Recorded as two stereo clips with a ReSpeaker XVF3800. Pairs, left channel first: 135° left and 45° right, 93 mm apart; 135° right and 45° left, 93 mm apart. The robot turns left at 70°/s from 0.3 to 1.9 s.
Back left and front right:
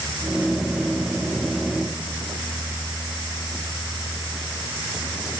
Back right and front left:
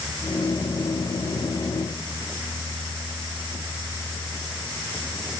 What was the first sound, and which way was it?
Only background noise.